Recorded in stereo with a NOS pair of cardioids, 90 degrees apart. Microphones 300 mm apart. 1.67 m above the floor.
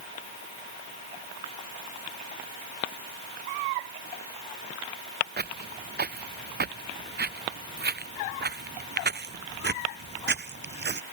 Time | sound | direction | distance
5.4 | footsteps | 30° right | ?